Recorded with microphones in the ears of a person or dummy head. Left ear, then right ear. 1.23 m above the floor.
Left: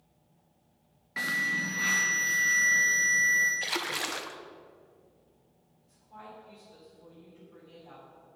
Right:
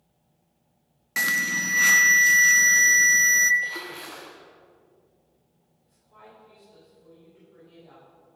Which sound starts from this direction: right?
An alarm, at 1.2 s.